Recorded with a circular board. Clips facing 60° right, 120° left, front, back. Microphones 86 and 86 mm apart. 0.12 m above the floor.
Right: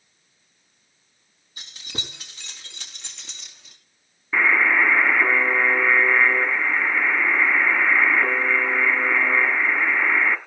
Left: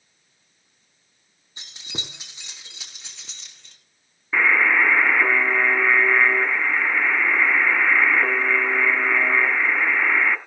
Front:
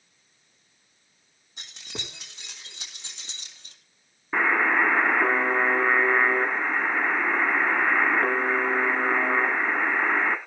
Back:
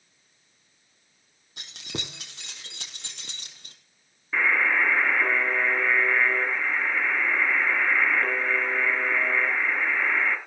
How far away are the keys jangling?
About 3.5 m.